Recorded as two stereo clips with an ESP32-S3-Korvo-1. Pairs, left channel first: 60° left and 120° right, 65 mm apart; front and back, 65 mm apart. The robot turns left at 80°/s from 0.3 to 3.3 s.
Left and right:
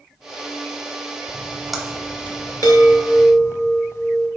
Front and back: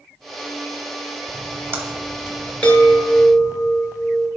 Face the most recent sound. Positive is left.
turn(degrees=15)